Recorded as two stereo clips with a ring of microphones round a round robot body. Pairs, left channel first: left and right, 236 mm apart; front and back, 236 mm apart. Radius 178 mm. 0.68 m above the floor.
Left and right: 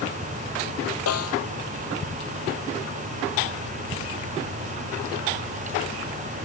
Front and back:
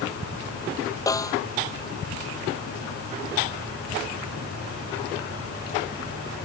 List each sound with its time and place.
1.1 s a snare drum: 75° left